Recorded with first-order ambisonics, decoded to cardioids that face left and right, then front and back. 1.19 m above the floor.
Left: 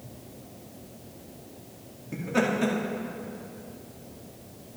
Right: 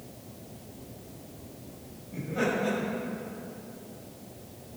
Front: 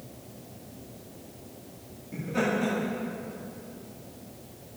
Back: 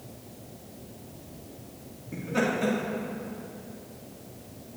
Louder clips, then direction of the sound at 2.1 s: Left 2 dB, back 1 dB; 105° left.